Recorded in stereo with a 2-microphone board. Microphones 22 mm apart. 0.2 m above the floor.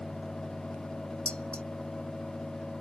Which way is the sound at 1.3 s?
65° left (ahead or behind).